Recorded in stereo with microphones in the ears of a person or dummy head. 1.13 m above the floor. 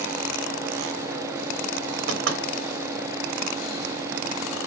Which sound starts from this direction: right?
Knocking, at 2.1 s.